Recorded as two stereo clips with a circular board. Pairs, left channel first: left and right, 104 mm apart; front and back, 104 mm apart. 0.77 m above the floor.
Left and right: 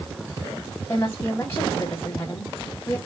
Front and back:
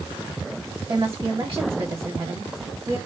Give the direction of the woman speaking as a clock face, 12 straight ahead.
7 o'clock.